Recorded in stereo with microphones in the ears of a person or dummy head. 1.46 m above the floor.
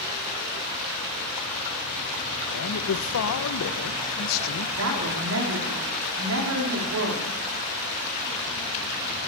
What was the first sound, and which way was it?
A man speaking, 70° left (ahead or behind).